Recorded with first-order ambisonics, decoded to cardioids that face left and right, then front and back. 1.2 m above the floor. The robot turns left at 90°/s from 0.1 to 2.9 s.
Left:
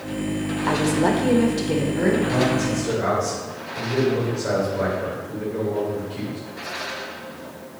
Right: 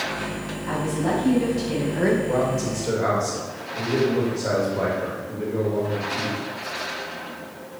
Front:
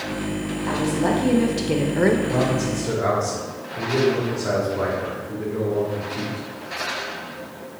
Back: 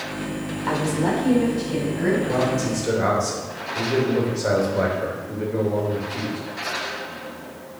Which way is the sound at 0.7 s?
110° left.